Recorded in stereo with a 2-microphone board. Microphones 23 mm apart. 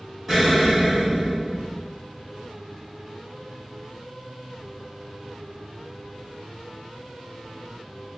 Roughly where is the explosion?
Centre.